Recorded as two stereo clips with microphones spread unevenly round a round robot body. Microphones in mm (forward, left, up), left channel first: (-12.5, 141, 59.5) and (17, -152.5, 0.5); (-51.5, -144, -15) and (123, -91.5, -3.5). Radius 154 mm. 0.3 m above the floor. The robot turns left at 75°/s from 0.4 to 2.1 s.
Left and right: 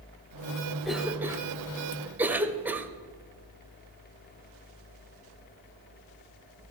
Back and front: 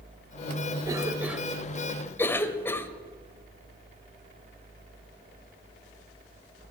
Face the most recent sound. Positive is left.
turn(degrees=-120)